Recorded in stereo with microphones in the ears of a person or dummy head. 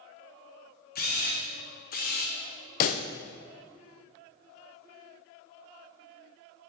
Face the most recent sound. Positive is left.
turn(degrees=45)  # may be behind; listen again after turning